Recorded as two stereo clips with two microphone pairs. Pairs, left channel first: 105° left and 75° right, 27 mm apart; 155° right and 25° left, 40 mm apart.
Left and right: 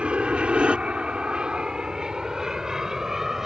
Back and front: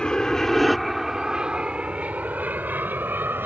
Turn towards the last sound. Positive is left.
turn(degrees=0)